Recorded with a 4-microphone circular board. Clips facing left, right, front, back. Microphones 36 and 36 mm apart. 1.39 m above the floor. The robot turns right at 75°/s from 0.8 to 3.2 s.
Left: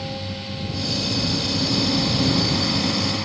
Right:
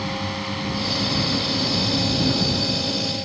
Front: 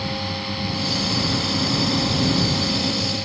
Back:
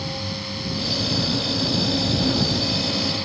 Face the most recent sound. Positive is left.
turn(degrees=105)